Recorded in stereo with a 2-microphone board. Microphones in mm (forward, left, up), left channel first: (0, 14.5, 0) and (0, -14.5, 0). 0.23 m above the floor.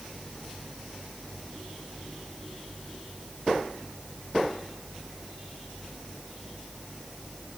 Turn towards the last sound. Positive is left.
No sound to turn to.